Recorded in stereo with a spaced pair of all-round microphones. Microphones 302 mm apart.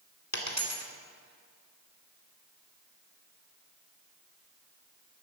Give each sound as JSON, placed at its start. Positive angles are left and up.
{"t": 0.3, "sound": "a dropped coin", "side_deg": 60, "distance_m": 1.9}